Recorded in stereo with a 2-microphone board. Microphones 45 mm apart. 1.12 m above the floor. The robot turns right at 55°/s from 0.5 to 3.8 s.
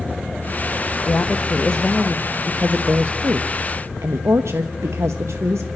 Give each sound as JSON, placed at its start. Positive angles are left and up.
{"t": 1.1, "sound": "a woman speaking", "azimuth_deg": 125, "distance_m": 0.9}